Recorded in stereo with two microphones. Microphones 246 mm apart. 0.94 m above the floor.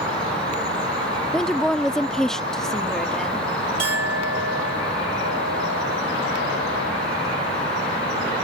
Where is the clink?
85° right.